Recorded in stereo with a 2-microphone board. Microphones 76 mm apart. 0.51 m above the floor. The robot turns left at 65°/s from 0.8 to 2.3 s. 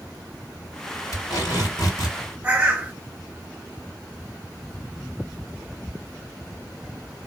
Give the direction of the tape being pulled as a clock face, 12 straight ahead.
8 o'clock.